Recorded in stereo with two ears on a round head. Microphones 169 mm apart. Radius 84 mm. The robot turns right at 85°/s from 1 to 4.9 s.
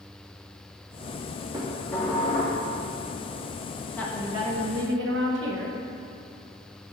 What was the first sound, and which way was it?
Dishes clattering, 20° right.